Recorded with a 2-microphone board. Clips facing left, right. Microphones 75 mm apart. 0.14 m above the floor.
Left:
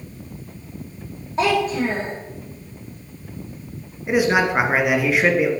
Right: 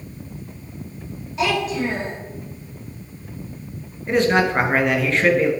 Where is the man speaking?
10° left (ahead or behind), 1.8 m.